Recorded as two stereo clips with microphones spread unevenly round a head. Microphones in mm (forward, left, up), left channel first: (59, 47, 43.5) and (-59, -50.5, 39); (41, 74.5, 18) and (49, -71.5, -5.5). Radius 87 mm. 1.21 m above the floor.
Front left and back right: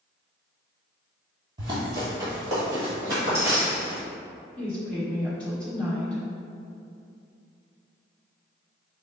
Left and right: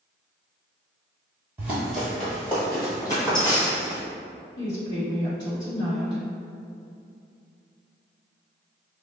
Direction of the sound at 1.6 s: 175° right.